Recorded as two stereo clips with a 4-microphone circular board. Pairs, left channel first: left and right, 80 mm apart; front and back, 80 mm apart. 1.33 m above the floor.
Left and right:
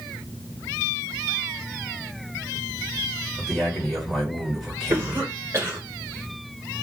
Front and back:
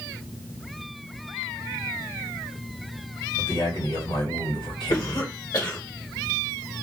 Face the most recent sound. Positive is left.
turn(degrees=-30)